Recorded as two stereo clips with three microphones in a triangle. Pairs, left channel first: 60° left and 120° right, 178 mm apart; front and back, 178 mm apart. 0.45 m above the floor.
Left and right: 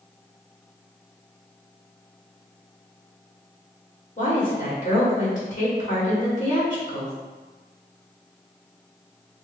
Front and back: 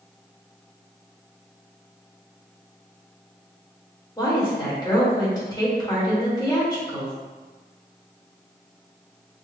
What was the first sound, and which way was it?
A woman speaking, 60° left.